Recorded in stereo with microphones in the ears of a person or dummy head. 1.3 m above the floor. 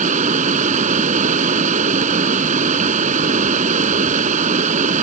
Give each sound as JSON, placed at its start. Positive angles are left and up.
{"t": 0.0, "sound": "running water", "side_deg": -40}